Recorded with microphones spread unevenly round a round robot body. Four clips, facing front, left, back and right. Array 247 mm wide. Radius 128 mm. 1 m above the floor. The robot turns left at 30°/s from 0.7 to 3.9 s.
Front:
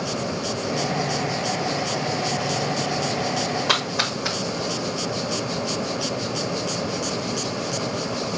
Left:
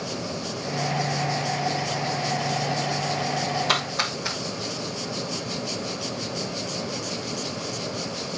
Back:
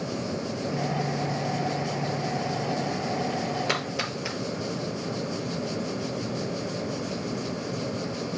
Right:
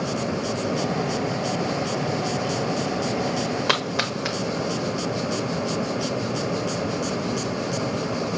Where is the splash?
105° right, 1.0 m; by 4.4 s 110° right, 1.0 m.